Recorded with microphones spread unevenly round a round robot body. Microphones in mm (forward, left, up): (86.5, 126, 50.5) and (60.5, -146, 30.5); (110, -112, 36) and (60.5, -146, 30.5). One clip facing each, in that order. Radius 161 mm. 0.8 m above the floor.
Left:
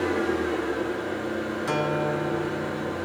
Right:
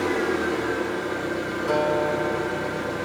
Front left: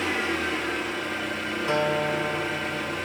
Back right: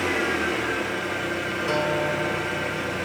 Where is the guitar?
125° left, 1.3 m.